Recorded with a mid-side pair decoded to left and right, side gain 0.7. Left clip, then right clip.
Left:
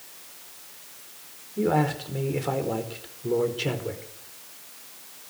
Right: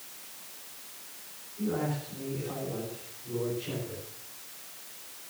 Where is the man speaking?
65° left, 4.5 m.